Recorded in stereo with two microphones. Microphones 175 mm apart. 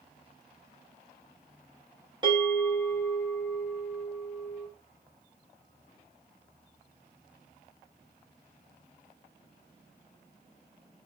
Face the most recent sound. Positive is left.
turn(degrees=-25)  # may be behind; listen again after turning